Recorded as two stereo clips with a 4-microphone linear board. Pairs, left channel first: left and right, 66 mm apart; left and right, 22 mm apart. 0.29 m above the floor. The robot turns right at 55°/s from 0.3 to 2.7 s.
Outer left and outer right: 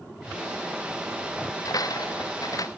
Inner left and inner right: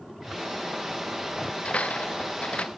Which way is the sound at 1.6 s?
65° left.